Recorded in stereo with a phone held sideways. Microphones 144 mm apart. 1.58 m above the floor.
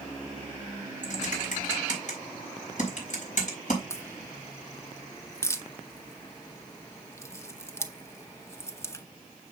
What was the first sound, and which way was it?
Typing on a keyboard, 55° left (ahead or behind).